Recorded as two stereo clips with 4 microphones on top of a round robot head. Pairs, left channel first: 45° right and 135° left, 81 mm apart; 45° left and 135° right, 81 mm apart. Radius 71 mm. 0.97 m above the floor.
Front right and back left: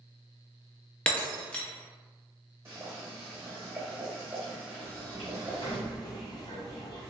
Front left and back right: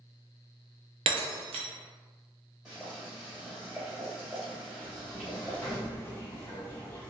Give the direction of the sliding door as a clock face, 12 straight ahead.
1 o'clock.